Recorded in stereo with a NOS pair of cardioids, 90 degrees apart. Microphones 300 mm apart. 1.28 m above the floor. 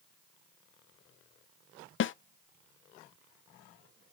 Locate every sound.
2.0 s a snare drum: 40° left, 0.5 m